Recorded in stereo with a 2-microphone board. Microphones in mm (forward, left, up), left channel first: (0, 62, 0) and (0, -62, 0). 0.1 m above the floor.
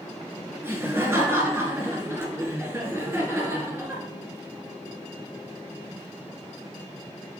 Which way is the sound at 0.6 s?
20° right (ahead or behind).